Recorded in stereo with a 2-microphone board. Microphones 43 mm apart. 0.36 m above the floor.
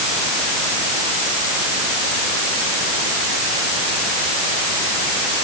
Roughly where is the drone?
I don't hear a drone.